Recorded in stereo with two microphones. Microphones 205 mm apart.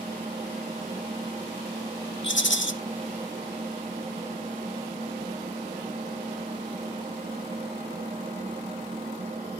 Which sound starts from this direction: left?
A rattle, at 2.2 s.